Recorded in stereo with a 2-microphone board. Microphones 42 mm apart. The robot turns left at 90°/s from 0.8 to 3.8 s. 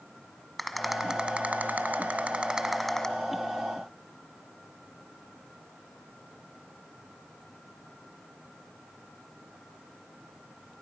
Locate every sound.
0.6 s a rattle: 5° left, 1.5 m; by 3.1 s 160° left, 1.5 m